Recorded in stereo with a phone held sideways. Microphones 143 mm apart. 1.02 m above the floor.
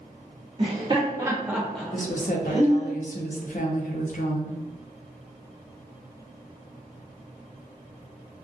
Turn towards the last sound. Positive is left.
turn(degrees=60)  # may be behind; listen again after turning